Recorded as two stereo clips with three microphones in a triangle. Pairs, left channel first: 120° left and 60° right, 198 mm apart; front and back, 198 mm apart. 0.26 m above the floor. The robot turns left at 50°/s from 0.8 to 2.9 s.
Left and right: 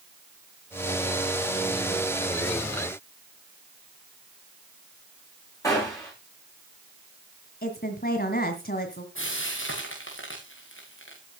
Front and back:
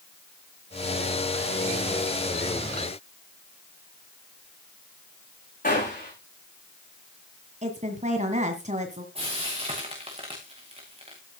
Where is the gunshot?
45° left, 9 m.